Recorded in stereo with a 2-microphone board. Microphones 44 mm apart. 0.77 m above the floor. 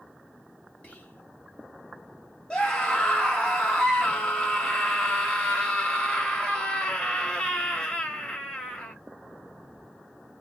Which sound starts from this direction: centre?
A scream, at 2.5 s.